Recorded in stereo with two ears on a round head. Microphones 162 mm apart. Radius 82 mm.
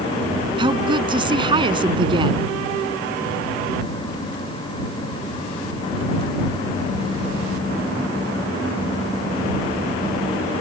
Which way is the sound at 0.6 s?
30° right (ahead or behind).